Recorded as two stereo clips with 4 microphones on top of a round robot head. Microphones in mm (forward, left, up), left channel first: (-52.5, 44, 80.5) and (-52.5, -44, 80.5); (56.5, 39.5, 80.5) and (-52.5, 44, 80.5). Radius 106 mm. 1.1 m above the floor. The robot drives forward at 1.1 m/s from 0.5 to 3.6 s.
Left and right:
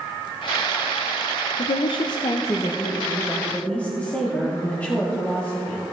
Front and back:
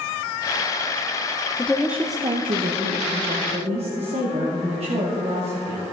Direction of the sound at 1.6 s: 70° left.